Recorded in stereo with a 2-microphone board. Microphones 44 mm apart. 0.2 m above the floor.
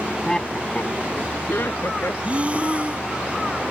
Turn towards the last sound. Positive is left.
turn(degrees=-30)  # may be behind; listen again after turning